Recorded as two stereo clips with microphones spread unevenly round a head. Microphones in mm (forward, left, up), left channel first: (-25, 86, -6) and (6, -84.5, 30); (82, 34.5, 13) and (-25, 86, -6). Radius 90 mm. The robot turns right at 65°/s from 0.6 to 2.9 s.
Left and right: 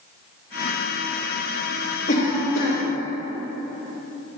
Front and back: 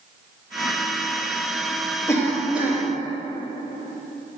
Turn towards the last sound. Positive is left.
turn(degrees=95)